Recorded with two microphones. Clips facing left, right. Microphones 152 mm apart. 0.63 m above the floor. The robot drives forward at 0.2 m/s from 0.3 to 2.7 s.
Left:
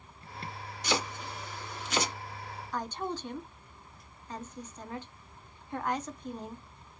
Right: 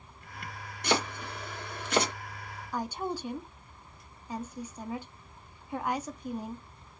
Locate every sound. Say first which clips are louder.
0.8 s chopping: right 3 dB; 55° right (ahead or behind), 1.5 m
2.7 s a woman speaking: right 2 dB; 10° right (ahead or behind), 0.7 m